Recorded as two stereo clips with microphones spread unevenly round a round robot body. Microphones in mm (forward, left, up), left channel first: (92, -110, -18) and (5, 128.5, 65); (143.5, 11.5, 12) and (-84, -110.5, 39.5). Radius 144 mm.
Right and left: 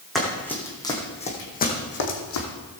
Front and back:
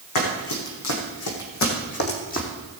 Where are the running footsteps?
25° left, 3.5 m; by 2.5 s 35° right, 3 m.